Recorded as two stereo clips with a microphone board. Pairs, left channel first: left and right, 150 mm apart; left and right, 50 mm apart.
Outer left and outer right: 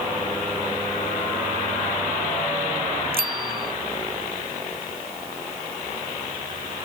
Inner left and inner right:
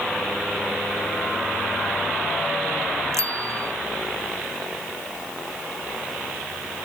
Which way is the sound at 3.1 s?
85° right.